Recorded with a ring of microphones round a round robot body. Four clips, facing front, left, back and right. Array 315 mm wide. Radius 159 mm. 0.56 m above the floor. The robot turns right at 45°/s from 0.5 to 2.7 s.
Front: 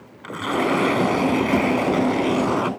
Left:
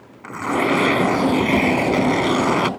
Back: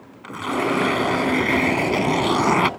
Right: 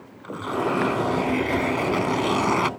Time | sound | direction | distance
0.2 | tearing paper | 75° left | ?